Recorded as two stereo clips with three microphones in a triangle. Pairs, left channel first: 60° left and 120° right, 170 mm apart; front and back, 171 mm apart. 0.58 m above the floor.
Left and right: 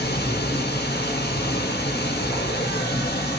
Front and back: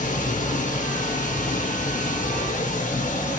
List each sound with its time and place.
0.0 s running water: 40° left, 0.9 m